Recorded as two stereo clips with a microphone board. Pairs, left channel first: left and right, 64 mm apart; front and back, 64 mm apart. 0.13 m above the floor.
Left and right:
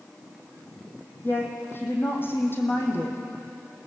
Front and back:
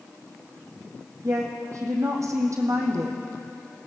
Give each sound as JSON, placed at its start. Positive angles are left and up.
{"t": 1.2, "sound": "a woman speaking", "azimuth_deg": 145, "distance_m": 4.5}